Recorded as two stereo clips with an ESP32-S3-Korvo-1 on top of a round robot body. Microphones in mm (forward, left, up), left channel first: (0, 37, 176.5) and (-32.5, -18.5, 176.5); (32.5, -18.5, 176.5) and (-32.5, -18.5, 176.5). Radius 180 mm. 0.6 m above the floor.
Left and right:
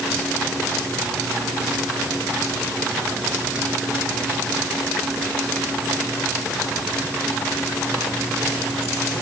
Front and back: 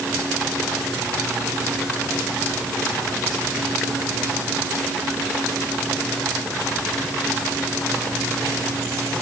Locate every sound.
Only background noise.